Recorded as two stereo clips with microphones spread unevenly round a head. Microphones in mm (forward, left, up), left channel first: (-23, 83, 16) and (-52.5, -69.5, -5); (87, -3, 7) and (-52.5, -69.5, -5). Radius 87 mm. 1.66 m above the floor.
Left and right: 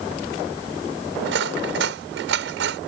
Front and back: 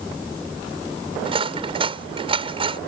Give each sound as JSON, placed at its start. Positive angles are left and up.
{"t": 1.2, "sound": "cutlery clinking", "azimuth_deg": -100}